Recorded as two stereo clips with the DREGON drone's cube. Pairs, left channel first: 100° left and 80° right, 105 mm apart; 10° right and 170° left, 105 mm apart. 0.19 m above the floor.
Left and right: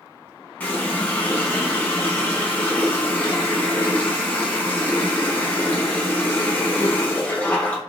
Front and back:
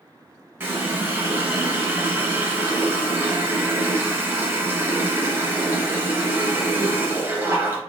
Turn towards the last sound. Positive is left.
turn(degrees=145)